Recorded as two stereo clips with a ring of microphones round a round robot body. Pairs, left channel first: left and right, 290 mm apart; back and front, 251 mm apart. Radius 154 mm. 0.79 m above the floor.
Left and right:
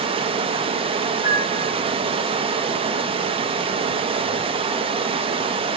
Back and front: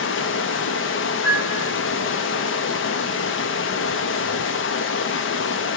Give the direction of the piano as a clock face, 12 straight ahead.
9 o'clock.